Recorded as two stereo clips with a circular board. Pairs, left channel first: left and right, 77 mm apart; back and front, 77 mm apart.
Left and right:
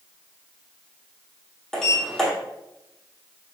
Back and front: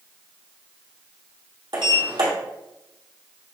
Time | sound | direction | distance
1.7 | a sliding door | 5° left | 2.5 m